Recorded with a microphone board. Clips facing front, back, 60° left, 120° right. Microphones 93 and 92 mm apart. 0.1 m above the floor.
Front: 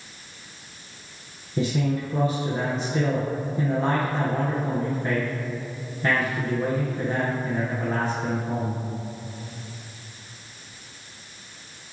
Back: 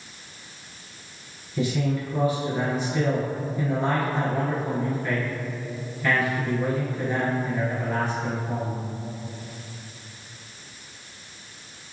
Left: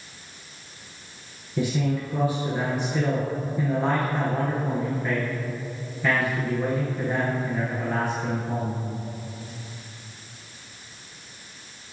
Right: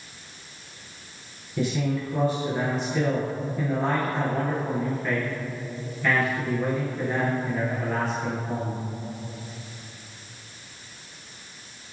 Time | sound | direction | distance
1.6 | a man speaking | 5° right | 1.8 m